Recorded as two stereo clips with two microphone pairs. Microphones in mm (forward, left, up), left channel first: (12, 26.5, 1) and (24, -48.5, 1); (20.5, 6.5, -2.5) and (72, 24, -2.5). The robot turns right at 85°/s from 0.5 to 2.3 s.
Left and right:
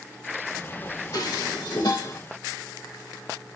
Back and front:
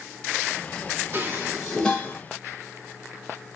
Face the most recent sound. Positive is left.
turn(degrees=155)